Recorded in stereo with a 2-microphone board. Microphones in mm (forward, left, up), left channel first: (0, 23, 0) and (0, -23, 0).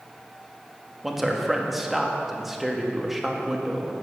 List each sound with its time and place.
1.0 s a man speaking: 5° right (ahead or behind), 1.4 m